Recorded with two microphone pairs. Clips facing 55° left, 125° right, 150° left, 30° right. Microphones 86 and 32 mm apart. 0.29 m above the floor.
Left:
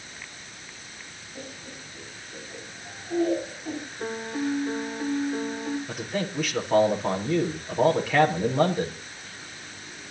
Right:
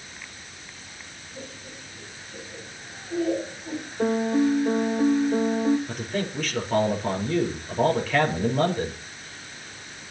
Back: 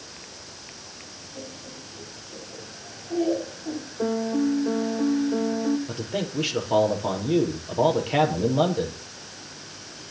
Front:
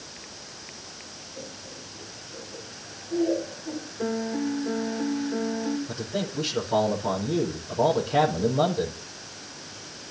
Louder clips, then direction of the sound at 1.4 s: Even, back 2 dB; 120° left.